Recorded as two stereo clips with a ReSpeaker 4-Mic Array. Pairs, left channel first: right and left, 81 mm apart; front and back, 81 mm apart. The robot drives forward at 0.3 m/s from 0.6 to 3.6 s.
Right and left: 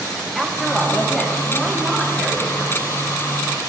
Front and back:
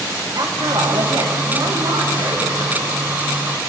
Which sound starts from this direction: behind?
A woman speaking, at 0.3 s.